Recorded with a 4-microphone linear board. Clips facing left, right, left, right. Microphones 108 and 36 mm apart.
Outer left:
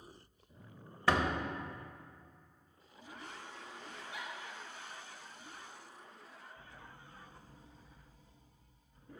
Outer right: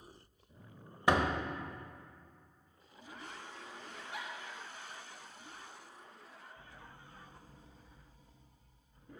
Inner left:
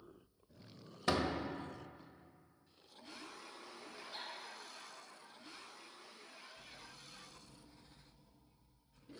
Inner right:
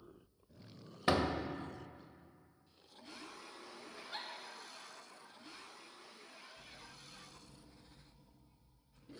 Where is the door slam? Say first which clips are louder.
Outer right 1 dB, inner right 2 dB; 20° right (ahead or behind), 0.7 m.